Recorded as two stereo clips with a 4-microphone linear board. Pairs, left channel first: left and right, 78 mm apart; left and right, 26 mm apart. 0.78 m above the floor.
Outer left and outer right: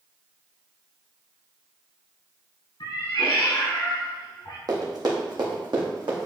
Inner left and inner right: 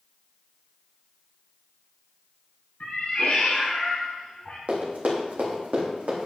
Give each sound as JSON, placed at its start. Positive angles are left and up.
{"t": 2.8, "sound": "a cat meowing", "side_deg": 65, "distance_m": 2.5}
{"t": 4.7, "sound": "running footsteps", "side_deg": -55, "distance_m": 2.0}